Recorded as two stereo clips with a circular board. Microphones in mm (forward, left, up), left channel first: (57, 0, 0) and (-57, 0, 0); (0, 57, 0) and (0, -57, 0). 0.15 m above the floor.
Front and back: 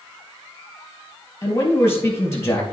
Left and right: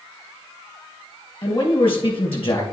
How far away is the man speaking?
About 3.5 m.